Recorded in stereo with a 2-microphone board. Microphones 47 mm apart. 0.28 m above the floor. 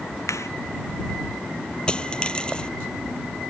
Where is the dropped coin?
20° left (ahead or behind).